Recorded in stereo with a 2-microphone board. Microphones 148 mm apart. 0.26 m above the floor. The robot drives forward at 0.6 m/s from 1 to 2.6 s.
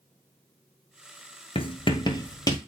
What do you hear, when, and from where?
1.6 s writing: 40° left (ahead or behind), 0.9 m; by 2.6 s 25° left (ahead or behind), 1.4 m